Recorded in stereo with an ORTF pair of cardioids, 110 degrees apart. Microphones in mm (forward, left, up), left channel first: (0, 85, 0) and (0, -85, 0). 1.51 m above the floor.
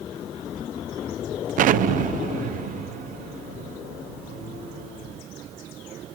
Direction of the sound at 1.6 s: 60° right.